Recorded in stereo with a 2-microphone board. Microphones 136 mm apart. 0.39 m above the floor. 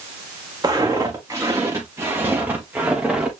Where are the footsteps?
30° right (ahead or behind), 4.5 m; by 3.3 s 10° right (ahead or behind), 4 m.